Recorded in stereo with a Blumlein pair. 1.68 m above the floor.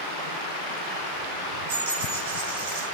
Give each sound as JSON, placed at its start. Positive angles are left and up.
{"t": 1.7, "sound": "a dropped coin", "azimuth_deg": -50, "distance_m": 5.0}